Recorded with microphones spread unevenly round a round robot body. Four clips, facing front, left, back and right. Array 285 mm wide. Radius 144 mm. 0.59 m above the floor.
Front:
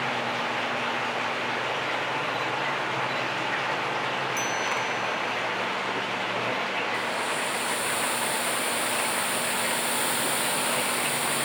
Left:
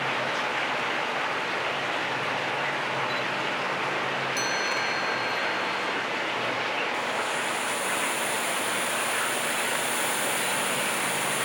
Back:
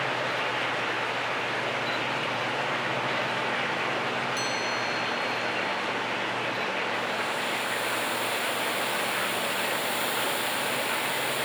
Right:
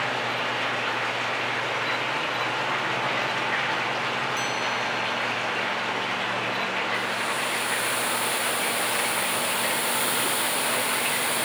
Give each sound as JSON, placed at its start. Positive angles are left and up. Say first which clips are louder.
{"t": 4.4, "sound": "a chime", "louder": "right 1 dB, front 2 dB", "azimuth_deg": 90, "distance_m": 0.7}
{"t": 6.9, "sound": "a hiss", "louder": "right 1 dB, front 1 dB", "azimuth_deg": -45, "distance_m": 0.6}